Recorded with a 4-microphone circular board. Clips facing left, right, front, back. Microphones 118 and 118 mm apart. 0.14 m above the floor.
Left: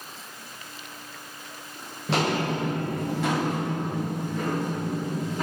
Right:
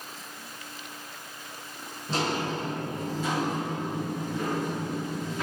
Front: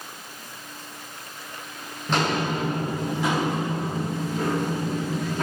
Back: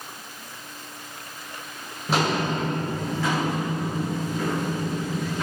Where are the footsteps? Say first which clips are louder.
Left 4 dB, back 1 dB; 100° left, 1.2 m; by 5.4 s 45° left, 2.5 m.